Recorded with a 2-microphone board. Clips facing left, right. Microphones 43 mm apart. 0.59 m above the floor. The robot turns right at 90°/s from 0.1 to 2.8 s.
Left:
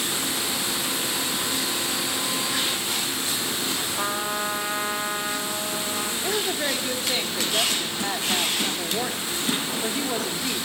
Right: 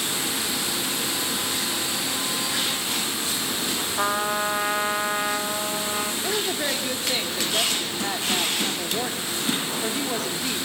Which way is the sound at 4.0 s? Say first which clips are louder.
Right 5 dB; 20° right (ahead or behind).